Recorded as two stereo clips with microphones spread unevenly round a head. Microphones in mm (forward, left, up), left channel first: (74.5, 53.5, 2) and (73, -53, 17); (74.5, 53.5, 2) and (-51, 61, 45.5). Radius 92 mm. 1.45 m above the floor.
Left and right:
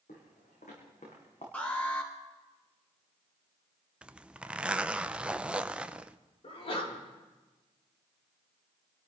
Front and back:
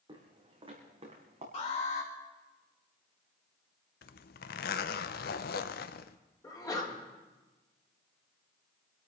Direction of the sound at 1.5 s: 15° left.